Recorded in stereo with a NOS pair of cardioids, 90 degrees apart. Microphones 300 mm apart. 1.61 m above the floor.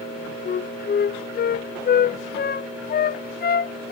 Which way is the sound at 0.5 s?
30° left.